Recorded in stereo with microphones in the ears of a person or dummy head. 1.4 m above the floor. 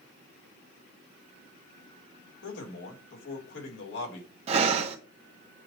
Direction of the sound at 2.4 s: 75° left (ahead or behind).